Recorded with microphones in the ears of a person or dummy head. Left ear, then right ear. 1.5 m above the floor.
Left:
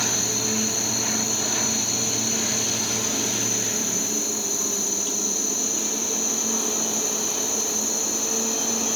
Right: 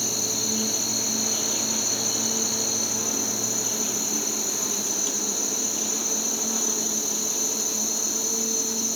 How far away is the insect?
About 1.8 m.